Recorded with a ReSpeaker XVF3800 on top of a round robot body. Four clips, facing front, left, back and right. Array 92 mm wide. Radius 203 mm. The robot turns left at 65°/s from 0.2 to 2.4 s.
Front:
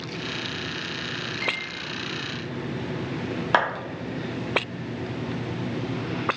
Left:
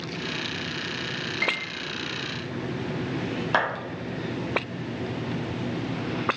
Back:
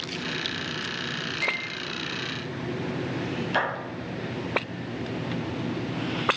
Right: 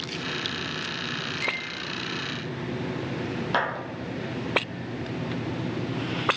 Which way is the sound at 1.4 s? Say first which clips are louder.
Left 5 dB, back 1 dB; 95° left.